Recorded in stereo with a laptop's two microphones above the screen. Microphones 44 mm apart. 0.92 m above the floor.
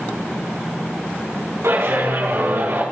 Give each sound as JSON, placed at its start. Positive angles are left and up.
{"t": 1.6, "sound": "a clap", "side_deg": -85, "distance_m": 6.0}